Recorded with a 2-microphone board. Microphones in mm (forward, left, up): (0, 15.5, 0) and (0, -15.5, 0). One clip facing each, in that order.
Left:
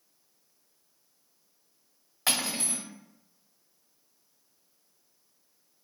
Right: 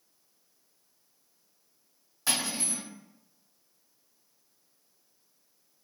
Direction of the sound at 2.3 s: 55° left (ahead or behind).